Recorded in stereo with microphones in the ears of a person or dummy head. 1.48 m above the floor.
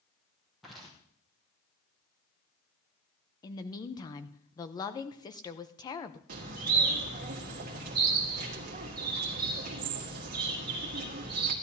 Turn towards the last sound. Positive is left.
turn(degrees=-45)  # may be behind; listen again after turning